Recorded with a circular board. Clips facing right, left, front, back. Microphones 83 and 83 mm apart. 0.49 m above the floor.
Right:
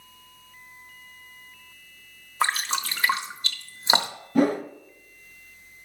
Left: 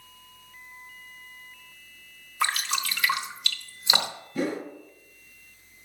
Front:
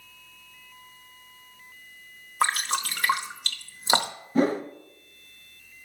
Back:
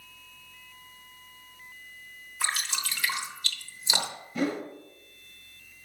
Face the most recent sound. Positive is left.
turn(degrees=-55)